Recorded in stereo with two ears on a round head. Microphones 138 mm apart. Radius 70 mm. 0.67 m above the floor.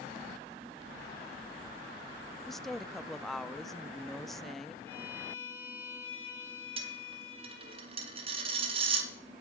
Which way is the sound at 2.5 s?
Centre (ahead or behind).